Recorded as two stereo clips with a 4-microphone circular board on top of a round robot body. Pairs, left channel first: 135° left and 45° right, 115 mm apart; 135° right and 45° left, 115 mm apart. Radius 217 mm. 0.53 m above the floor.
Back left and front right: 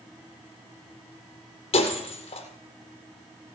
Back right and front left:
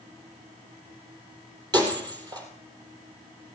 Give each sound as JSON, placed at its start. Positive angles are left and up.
{"t": 1.7, "sound": "breaking glass", "azimuth_deg": 100, "distance_m": 3.0}